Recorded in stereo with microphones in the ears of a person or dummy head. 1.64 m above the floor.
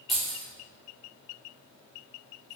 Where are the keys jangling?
Centre (ahead or behind), 0.7 m.